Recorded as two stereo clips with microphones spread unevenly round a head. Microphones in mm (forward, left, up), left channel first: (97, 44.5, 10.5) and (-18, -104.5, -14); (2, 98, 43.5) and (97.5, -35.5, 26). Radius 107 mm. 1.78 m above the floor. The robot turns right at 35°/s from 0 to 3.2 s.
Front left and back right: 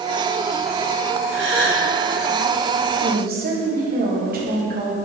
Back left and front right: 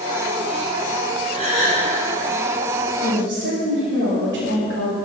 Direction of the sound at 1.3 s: 120° right.